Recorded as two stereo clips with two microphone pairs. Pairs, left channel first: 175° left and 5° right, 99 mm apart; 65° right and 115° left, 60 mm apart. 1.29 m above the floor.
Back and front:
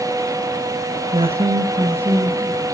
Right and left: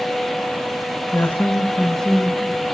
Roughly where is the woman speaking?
Ahead.